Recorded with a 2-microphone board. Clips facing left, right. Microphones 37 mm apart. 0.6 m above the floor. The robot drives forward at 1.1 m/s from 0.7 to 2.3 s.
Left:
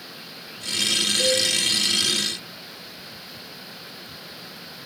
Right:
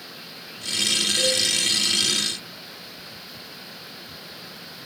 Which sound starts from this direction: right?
A cowbell, at 1.2 s.